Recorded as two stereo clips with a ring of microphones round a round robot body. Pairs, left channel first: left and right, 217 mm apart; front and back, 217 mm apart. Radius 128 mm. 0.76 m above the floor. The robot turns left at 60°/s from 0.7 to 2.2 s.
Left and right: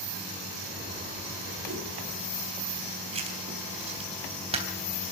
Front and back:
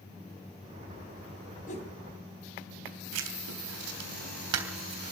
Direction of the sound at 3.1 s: 155° right.